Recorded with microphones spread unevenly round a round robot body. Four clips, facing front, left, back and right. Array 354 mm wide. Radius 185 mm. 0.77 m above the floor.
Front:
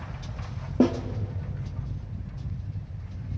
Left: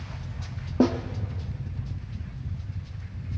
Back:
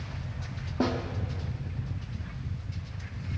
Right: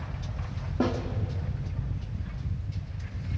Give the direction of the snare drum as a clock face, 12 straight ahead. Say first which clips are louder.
Left 6 dB, front 6 dB; 11 o'clock.